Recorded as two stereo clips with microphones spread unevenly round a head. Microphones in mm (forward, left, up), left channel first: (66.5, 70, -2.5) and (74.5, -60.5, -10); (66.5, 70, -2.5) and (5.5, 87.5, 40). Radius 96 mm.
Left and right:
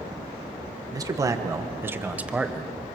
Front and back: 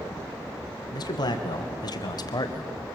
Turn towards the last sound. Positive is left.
turn(degrees=0)